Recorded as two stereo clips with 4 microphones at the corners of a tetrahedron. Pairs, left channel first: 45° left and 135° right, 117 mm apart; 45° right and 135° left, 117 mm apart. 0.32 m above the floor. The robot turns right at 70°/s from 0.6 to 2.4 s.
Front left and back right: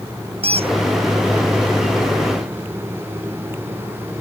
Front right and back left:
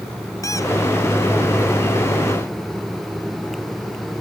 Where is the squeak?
105° right; by 0.7 s 95° right.